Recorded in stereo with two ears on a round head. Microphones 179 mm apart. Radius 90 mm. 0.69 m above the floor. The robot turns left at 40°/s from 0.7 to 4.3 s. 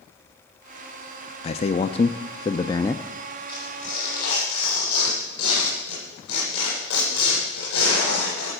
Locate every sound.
1.4 s a man speaking: 90° left, 0.6 m; by 3.0 s 25° left, 0.6 m
3.5 s tearing paper: 155° left, 9 m; by 8.5 s 125° left, 9 m